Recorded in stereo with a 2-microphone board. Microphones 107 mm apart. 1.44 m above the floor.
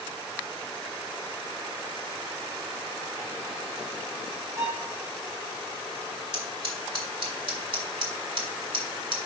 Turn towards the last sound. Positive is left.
turn(degrees=-55)  # may be behind; listen again after turning